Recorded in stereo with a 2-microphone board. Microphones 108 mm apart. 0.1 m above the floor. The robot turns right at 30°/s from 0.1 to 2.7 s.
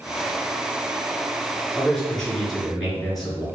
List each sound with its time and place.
1.8 s a man speaking: 10° left (ahead or behind), 1.4 m; by 3.5 s centre (ahead or behind), 1.4 m